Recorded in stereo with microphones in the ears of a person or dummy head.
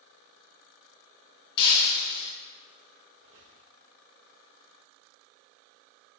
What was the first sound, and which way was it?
Breaking glass, 30° left (ahead or behind).